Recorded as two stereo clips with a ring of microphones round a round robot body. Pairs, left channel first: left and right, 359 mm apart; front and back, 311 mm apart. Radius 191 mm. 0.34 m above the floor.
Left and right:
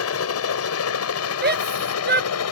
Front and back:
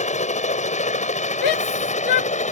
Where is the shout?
25° right.